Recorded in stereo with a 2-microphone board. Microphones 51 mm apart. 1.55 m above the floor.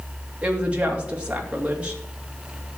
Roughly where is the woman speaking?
Right.